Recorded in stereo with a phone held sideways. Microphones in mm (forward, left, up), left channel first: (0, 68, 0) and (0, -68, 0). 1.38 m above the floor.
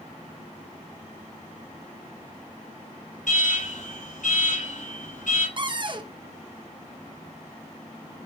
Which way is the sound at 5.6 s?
35° right (ahead or behind).